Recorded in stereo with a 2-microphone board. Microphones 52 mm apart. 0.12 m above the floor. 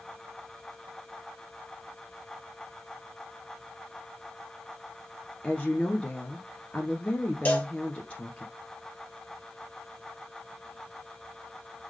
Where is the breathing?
I don't hear breathing.